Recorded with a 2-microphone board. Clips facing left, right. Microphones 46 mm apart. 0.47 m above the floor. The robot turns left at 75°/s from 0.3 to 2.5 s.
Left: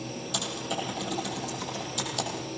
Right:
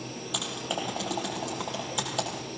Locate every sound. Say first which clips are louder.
0.3 s typing on a keyboard: even; 20° right (ahead or behind), 7 m; by 2.3 s 15° right (ahead or behind), 7 m